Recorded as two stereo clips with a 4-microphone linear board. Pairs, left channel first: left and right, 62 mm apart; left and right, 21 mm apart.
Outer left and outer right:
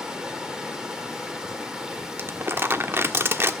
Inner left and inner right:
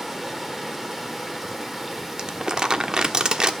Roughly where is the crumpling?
Right.